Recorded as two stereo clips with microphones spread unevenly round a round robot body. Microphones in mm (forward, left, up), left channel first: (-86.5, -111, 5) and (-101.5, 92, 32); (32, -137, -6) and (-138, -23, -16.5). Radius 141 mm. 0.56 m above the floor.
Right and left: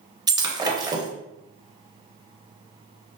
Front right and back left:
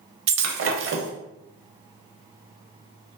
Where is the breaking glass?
160° left, 0.5 m.